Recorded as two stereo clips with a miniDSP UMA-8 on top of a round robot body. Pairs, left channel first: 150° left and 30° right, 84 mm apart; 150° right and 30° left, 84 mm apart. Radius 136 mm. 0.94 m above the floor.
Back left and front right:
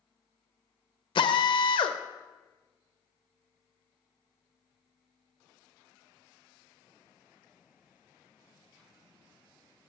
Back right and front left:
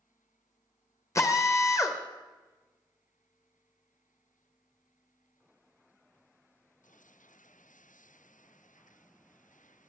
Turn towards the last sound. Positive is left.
turn(degrees=155)